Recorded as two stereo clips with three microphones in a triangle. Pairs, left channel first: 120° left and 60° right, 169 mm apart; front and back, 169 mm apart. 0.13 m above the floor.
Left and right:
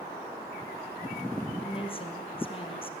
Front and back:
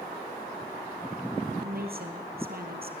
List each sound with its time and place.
1.6 s a woman speaking: 175° left, 3 m